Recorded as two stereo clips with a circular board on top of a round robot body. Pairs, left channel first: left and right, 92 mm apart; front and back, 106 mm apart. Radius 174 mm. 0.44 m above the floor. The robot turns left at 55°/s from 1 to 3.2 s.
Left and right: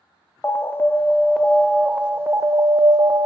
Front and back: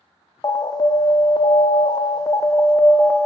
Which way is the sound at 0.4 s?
30° left.